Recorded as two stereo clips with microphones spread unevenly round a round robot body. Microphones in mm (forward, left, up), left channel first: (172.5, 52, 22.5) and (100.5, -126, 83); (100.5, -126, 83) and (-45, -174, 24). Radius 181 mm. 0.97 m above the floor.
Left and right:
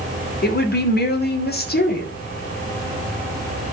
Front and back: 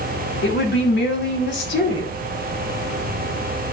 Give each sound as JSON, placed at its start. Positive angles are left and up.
{"t": 0.4, "sound": "a woman speaking", "azimuth_deg": 30, "distance_m": 2.5}